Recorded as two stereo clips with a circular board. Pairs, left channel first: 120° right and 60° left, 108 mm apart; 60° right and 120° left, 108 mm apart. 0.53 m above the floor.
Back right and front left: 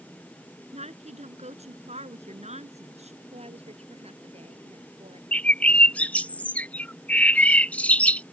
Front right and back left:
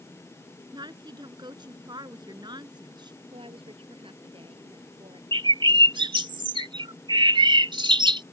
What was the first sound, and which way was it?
A woman speaking, 70° left.